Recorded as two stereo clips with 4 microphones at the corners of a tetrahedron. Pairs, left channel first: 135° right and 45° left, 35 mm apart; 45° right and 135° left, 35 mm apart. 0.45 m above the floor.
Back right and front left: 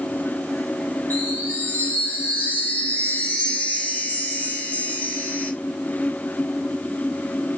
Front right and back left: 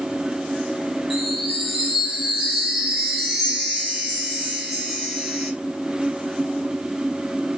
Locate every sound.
1.1 s a chime: 145° right, 3.5 m